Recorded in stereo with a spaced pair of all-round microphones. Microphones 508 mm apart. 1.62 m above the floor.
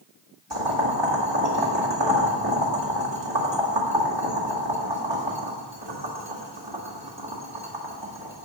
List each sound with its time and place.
0.5 s boiling: 55° right (ahead or behind), 2.5 m